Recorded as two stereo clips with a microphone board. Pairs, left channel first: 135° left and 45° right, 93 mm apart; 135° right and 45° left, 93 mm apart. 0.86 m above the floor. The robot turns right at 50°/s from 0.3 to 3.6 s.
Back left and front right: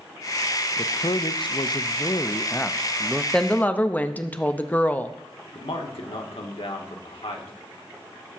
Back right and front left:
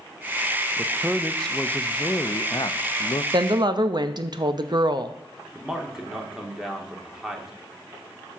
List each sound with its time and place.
0.8 s a man speaking: 110° left, 0.5 m; by 3.2 s 130° right, 0.5 m
3.3 s a woman speaking: 55° left, 0.6 m; by 5.2 s 65° left, 0.6 m
5.5 s a man speaking: 130° left, 1.6 m